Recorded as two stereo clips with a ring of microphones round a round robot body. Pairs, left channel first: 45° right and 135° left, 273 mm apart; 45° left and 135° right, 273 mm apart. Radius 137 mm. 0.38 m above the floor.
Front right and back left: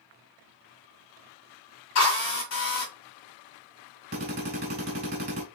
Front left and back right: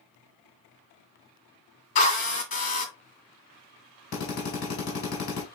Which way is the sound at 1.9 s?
15° right.